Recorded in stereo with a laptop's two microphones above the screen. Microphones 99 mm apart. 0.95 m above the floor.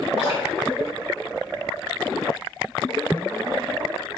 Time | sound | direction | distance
0.2 | dripping | 65° left (ahead or behind) | 2.5 m